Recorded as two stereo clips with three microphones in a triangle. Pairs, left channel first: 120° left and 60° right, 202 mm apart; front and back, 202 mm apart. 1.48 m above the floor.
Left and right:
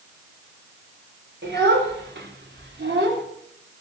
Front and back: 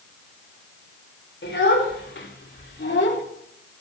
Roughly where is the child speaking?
Ahead right.